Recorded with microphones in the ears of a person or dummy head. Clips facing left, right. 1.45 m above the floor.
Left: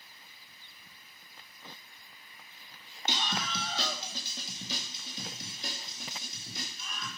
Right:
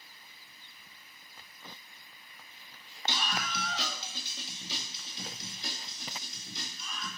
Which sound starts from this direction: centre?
A scream, at 3.1 s.